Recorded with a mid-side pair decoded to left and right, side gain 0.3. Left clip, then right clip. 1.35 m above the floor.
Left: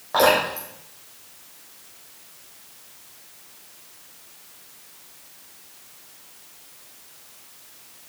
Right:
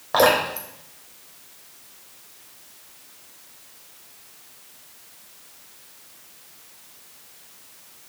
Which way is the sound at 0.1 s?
55° right.